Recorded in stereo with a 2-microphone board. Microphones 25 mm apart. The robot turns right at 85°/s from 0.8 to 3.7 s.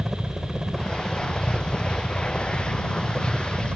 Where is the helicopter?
20° right; by 3.8 s 130° right.